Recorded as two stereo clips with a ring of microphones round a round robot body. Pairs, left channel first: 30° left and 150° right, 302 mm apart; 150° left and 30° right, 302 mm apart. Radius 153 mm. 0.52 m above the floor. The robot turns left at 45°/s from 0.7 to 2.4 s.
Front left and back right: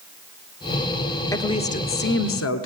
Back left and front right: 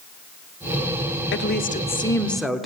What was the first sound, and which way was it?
A woman speaking, 110° left.